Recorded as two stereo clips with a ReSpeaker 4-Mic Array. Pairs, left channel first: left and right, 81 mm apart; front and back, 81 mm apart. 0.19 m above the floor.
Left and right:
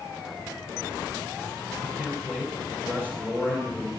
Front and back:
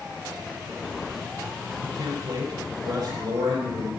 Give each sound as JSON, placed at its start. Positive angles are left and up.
{"t": 1.8, "sound": "a man speaking", "azimuth_deg": -160, "distance_m": 5.0}